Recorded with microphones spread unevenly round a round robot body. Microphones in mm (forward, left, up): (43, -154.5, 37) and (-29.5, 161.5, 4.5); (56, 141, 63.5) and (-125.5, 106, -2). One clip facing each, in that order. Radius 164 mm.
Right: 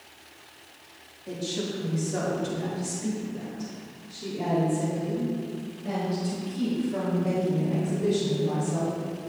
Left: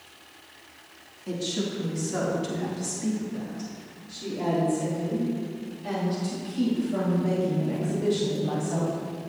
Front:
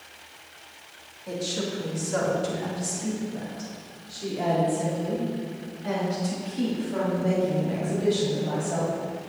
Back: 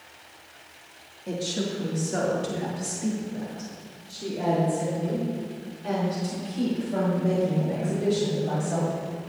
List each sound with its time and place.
1.3 s a woman speaking: 150° left, 1.9 m; by 8.9 s 125° left, 5.5 m